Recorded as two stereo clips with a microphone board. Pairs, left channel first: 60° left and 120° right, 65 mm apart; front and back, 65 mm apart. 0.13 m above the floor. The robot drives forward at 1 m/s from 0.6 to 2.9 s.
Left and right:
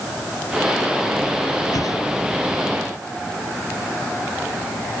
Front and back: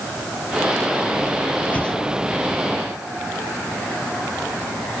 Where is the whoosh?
65° left; by 2.0 s 85° left.